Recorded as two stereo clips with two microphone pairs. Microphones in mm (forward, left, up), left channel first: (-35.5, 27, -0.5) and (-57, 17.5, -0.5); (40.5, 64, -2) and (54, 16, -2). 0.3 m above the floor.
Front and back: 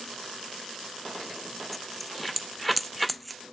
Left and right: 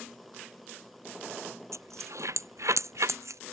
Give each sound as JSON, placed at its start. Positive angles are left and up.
{"t": 1.7, "sound": "a dropped coin", "azimuth_deg": -60}